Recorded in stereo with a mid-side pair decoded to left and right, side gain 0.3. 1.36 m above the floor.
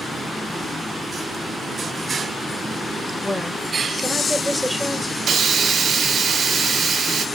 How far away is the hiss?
About 0.7 m.